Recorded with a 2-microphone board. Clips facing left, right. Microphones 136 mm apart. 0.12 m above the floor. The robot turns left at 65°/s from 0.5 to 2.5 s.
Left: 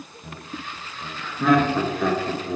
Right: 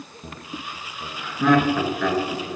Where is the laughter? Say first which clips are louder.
Even; 25° right (ahead or behind), 1.2 m; by 2.6 s 30° left (ahead or behind), 1.2 m.